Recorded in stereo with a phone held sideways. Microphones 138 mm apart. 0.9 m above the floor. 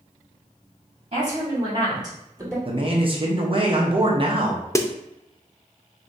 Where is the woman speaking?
50° right (ahead or behind), 2 m; by 2.5 s 20° right (ahead or behind), 3 m.